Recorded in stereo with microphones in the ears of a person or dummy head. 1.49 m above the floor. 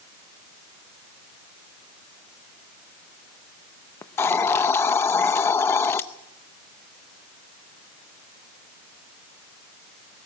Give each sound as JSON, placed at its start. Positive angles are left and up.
{"t": 4.0, "sound": "a hiss", "side_deg": 15, "distance_m": 0.7}